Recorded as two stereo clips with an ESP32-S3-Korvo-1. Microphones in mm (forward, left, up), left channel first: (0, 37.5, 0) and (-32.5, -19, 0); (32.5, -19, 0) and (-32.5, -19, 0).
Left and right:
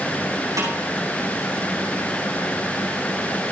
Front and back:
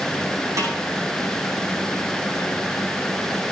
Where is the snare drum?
150° right, 9 m.